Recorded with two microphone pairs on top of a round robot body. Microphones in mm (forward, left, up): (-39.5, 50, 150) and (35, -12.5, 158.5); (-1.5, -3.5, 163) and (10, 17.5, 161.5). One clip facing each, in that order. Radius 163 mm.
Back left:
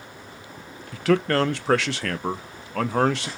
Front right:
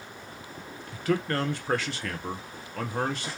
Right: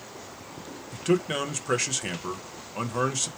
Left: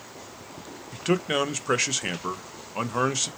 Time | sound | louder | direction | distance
0.9 | a man speaking | back left 7 dB, left 1 dB | 135° left | 0.6 m